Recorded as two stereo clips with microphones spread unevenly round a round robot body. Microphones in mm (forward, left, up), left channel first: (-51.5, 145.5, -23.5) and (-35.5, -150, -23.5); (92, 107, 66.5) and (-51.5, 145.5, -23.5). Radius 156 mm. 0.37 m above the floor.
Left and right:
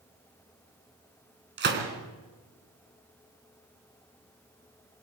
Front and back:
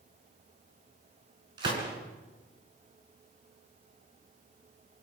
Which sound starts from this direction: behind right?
A gunshot, at 1.6 s.